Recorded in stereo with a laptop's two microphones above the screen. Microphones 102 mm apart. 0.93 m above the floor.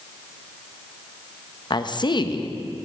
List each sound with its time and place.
1.7 s a woman speaking: 45° left (ahead or behind), 0.5 m